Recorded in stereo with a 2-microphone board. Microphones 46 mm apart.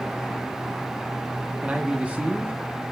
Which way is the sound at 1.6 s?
30° right (ahead or behind).